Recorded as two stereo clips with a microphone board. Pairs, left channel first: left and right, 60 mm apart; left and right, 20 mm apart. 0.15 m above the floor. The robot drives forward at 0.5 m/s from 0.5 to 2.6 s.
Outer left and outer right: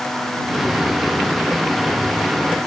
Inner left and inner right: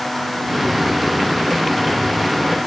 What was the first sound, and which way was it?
Only background noise.